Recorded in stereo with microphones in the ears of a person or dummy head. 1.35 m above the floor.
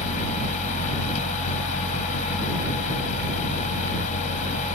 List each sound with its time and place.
0.0 s a fan: 40° left (ahead or behind)